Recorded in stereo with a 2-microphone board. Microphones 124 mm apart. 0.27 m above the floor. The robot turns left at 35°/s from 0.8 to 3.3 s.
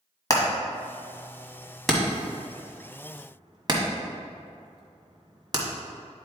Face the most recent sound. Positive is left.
turn(degrees=-35)  # may be behind; listen again after turning